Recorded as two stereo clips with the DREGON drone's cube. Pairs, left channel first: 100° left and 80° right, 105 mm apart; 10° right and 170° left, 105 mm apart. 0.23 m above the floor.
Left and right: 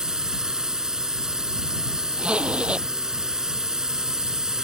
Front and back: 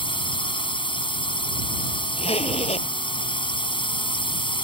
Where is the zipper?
Straight ahead.